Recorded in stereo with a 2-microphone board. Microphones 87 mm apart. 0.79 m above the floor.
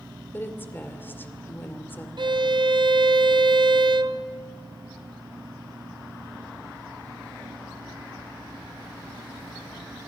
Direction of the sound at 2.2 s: 60° right (ahead or behind).